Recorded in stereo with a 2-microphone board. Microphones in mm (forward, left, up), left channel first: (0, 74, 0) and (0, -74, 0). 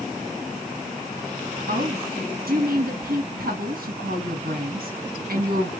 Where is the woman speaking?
80° right, 1.6 m.